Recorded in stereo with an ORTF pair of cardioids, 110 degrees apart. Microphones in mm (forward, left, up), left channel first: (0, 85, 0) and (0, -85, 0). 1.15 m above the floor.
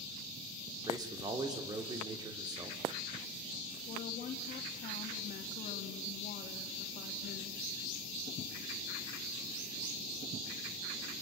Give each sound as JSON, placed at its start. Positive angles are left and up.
{"t": 0.9, "sound": "a man speaking", "azimuth_deg": -25, "distance_m": 3.0}
{"t": 3.9, "sound": "a woman speaking", "azimuth_deg": 55, "distance_m": 2.0}